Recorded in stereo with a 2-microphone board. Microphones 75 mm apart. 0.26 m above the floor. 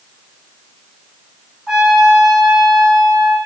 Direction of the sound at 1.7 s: 10° right (ahead or behind).